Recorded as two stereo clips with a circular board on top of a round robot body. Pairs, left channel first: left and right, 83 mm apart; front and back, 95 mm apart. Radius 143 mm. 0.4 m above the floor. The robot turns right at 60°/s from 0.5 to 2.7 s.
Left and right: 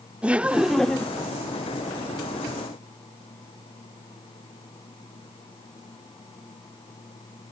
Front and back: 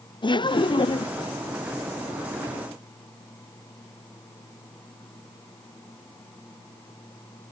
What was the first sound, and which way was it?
Laughter, 15° right.